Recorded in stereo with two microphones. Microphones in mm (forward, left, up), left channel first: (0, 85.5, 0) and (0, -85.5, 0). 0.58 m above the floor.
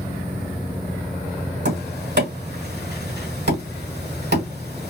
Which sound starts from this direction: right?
Tapping, at 1.6 s.